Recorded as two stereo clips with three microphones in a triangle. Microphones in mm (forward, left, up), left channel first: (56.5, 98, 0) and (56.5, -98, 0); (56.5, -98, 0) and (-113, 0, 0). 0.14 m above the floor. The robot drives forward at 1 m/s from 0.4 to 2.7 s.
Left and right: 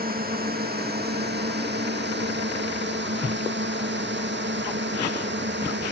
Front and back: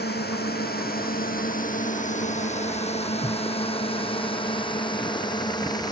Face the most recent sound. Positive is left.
turn(degrees=-100)